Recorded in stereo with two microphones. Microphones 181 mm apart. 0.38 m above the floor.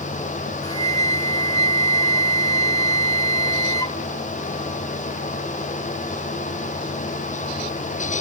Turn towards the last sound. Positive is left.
turn(degrees=20)  # may be behind; listen again after turning